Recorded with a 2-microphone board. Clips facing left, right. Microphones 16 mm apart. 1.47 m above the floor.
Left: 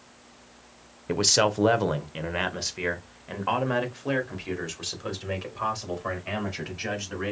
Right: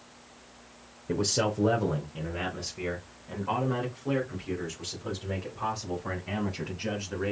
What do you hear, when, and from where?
1.1 s a man speaking: 45° left (ahead or behind), 0.6 m; by 7.3 s 90° left, 4 m